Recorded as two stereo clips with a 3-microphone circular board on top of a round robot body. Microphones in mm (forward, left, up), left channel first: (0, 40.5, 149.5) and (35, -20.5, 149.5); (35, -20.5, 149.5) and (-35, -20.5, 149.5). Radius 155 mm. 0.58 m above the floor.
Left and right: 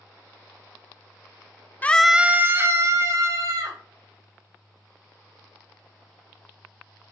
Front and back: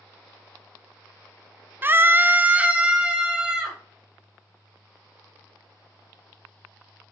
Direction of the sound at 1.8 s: 160° left.